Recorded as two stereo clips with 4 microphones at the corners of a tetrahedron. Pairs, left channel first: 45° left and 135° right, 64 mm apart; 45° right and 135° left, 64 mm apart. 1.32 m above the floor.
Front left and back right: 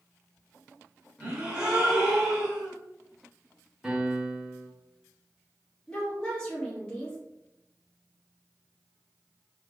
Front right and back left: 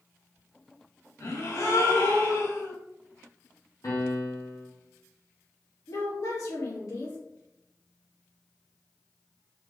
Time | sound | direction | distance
1.2 | a gasp | 60° right | 1.6 m
3.8 | a piano | 55° right | 1.5 m
5.9 | a woman speaking | 30° right | 2.5 m